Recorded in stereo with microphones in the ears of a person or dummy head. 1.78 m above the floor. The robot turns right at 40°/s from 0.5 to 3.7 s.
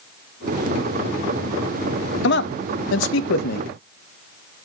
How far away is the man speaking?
About 0.9 m.